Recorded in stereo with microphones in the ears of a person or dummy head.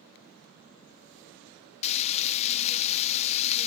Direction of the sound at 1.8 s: 40° left (ahead or behind).